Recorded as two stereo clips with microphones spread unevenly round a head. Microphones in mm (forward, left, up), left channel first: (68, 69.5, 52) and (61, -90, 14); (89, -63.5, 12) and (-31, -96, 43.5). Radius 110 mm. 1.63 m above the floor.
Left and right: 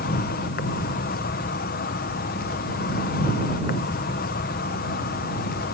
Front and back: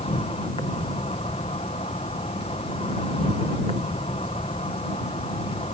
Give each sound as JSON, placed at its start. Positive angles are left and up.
{"t": 0.0, "sound": "an insect", "azimuth_deg": 85}